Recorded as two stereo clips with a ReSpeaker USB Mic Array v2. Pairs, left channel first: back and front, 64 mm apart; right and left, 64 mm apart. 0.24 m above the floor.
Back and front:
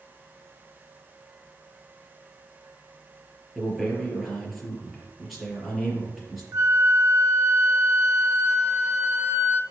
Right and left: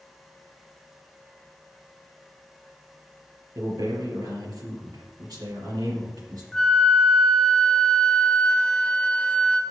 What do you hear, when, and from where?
3.5 s a man speaking: 90° left, 4 m
6.5 s a flute: 15° right, 0.9 m